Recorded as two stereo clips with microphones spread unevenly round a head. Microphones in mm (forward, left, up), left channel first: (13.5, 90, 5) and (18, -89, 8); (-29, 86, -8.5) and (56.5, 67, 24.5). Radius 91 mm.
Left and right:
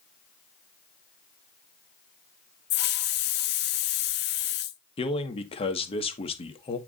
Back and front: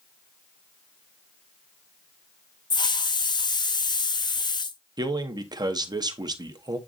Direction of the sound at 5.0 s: 30° left.